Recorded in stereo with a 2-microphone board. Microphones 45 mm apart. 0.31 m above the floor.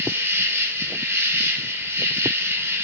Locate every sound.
0.0 s an insect: 70° right (ahead or behind), 0.9 m